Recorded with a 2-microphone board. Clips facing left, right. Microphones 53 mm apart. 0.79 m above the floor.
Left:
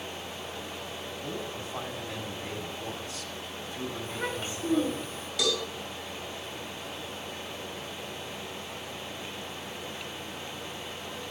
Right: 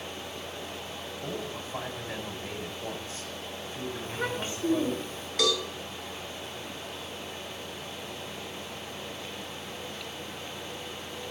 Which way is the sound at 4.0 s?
40° right (ahead or behind).